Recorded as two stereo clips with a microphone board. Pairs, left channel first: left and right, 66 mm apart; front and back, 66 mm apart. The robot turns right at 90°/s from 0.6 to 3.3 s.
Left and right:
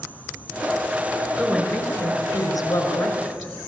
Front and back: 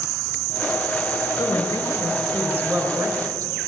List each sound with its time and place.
1.4 s a woman speaking: 5° left, 6 m; by 3.5 s straight behind, 6 m